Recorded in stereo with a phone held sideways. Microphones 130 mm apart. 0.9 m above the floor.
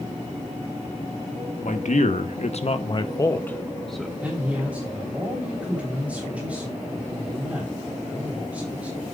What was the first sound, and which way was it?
A man speaking, 65° left (ahead or behind).